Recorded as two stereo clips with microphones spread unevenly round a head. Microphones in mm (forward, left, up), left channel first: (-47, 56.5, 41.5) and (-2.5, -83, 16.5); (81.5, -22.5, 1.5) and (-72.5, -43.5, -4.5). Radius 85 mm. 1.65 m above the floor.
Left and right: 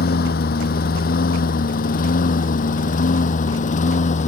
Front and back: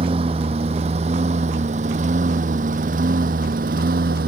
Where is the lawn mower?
125° left; by 4.3 s 145° left.